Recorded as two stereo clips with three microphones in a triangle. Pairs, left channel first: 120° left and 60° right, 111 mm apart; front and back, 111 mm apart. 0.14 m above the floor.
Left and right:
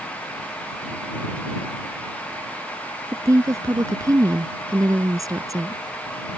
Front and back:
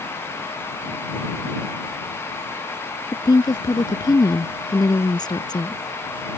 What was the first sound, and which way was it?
A woman speaking, 20° right.